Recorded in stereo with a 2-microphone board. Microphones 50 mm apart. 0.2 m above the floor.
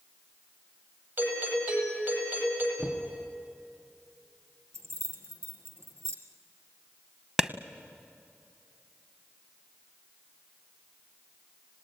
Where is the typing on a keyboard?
No typing on a keyboard in this recording.